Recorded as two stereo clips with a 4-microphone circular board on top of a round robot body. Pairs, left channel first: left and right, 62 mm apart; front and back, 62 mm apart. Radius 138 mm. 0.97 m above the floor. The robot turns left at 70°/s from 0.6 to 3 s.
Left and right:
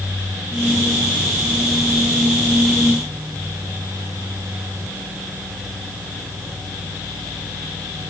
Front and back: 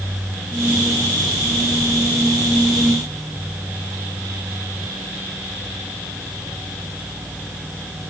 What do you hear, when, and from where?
Only background noise.